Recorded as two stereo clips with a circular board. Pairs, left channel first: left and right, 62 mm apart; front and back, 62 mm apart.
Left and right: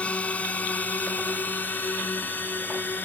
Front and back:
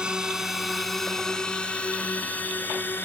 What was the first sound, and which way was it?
A drone, 125° left.